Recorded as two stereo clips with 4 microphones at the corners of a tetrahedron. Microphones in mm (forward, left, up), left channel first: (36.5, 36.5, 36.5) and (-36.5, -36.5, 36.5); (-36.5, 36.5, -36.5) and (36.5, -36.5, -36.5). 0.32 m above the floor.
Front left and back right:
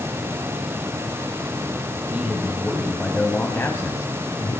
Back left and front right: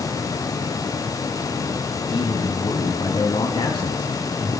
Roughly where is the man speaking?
Behind left.